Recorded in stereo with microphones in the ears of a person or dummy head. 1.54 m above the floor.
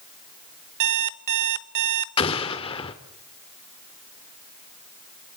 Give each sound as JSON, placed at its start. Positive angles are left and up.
{"t": 0.8, "sound": "an alarm clock", "side_deg": -60, "distance_m": 1.2}
{"t": 2.2, "sound": "an explosion", "side_deg": 30, "distance_m": 1.7}